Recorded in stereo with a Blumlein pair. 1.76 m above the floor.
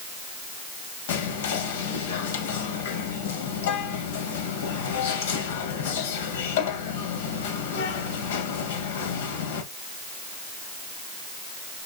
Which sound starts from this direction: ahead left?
Whispering, at 1.1 s.